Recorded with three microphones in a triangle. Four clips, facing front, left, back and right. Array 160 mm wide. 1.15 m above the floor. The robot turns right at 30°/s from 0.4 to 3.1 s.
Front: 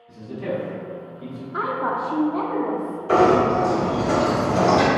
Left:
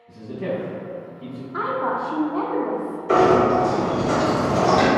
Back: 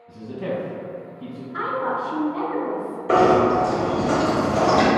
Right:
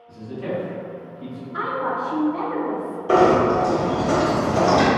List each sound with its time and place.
0.1 s a man speaking: 155° left, 1.3 m; by 1.4 s 170° right, 1.3 m
1.5 s a woman speaking: 20° left, 0.6 m; by 3.0 s 65° left, 0.6 m
3.1 s knocking: 140° right, 1.0 m